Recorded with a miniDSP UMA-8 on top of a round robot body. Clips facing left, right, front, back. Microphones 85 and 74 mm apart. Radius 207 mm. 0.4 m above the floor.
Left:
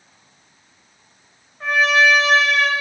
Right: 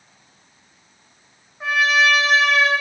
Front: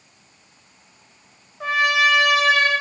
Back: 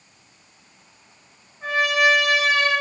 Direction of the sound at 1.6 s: 5° right.